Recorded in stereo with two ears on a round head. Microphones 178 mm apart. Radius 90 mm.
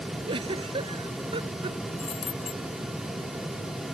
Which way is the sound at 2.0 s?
30° left (ahead or behind).